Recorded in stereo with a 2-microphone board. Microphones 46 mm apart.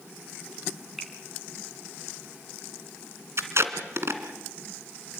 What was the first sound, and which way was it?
A finger snap, 5° right (ahead or behind).